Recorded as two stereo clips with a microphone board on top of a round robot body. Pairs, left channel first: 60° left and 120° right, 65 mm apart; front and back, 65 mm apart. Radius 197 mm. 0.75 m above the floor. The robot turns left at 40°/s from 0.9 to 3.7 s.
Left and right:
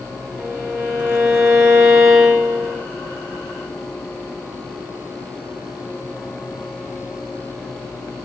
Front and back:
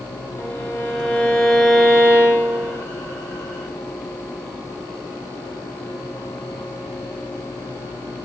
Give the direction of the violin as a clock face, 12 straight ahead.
2 o'clock.